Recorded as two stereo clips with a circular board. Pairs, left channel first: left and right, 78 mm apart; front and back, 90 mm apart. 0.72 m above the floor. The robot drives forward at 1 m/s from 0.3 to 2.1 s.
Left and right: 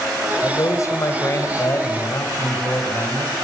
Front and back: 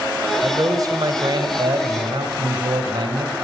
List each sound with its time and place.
0.4 s a man speaking: 130° left, 3 m; by 3.4 s 150° left, 4 m